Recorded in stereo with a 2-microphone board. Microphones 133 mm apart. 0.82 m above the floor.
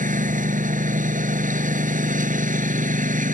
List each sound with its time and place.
0.0 s a lawn mower: 80° right